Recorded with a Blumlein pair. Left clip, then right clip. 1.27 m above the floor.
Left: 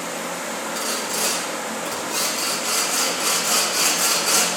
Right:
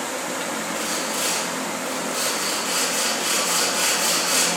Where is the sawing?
65° left, 2.5 m.